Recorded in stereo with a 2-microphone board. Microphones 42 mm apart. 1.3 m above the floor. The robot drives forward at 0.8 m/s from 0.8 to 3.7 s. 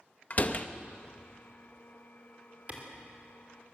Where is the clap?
35° right (ahead or behind), 4 m; by 2.8 s 40° right (ahead or behind), 4 m.